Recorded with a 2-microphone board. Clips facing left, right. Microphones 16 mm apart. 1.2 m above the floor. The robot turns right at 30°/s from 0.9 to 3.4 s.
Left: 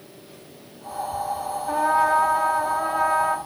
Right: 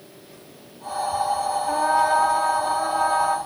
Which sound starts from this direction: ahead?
A trumpet, at 1.7 s.